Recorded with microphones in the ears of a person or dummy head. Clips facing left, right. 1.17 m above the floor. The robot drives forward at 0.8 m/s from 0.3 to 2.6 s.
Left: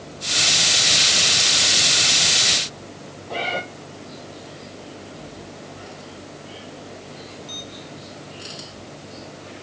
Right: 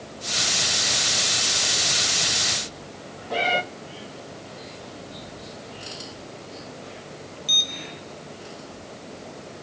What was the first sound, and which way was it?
A cat meowing, 10° right (ahead or behind).